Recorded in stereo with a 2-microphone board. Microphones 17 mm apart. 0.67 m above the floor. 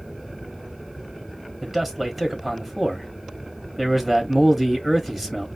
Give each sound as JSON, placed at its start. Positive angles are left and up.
{"t": 1.6, "sound": "a man speaking", "side_deg": -10, "distance_m": 1.2}